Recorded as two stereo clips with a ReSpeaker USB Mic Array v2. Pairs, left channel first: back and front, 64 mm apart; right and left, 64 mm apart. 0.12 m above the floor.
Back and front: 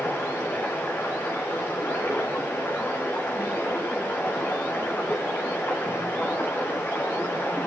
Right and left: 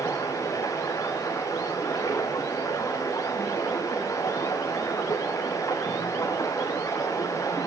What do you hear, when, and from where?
0.0 s running water: 120° right, 5.5 m